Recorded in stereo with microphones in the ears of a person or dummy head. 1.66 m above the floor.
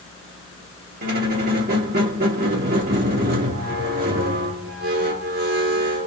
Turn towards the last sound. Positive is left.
turn(degrees=-45)  # may be behind; listen again after turning